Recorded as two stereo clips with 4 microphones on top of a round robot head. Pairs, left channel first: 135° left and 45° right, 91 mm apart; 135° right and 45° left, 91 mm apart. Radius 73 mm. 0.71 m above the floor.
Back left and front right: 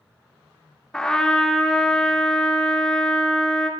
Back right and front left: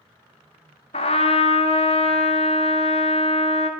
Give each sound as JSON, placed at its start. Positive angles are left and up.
{"t": 0.9, "sound": "a trumpet", "azimuth_deg": -140, "distance_m": 0.7}